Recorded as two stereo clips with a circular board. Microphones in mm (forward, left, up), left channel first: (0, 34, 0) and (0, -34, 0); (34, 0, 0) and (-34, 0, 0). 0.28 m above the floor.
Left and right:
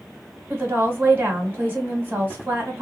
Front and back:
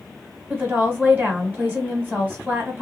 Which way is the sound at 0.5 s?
130° right.